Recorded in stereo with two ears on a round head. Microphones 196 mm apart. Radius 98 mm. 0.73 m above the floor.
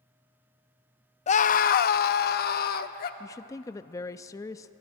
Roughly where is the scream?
Left.